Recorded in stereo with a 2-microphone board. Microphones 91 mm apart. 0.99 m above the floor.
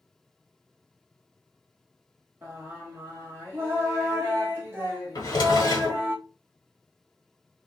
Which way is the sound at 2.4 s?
25° right (ahead or behind).